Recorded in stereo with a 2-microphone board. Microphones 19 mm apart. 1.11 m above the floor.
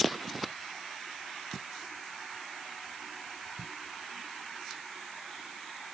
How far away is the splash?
I don't hear a splash.